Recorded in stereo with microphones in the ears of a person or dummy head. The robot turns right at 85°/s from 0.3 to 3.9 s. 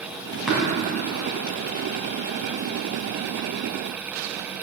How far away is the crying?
I don't hear crying.